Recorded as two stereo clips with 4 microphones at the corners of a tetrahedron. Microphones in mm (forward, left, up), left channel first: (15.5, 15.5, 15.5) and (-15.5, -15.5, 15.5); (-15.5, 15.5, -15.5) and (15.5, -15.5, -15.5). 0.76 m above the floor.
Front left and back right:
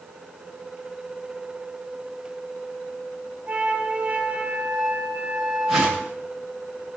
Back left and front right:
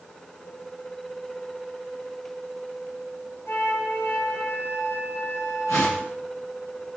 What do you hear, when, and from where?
3.5 s a flute: 165° left, 3 m
5.7 s a whoosh: 130° left, 8.5 m